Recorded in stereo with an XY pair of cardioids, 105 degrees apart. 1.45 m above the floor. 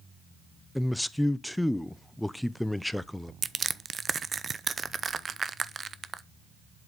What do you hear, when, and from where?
0.8 s a man speaking: 5° left, 0.5 m
3.4 s crushing: 35° right, 0.5 m